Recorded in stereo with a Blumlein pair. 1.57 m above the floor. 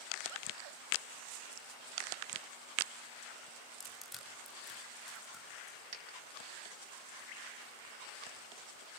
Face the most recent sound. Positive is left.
turn(degrees=-35)